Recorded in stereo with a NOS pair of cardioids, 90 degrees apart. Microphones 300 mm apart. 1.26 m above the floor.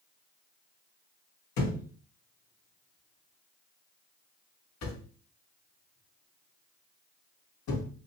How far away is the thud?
About 2.0 m.